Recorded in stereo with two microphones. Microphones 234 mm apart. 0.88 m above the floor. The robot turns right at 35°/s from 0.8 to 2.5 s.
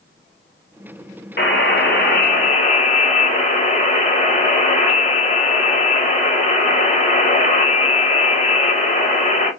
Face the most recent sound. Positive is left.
turn(degrees=135)